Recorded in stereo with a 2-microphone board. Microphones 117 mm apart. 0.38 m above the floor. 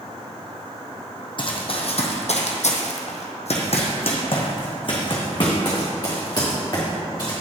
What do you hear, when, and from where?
1.4 s running footsteps: 45° left (ahead or behind), 1.2 m; by 7.3 s 30° left (ahead or behind), 3 m